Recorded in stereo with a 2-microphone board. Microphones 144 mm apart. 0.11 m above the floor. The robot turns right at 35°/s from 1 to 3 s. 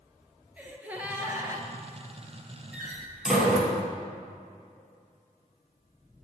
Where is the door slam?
10° right (ahead or behind), 1.4 m; by 3.8 s centre (ahead or behind), 1.4 m.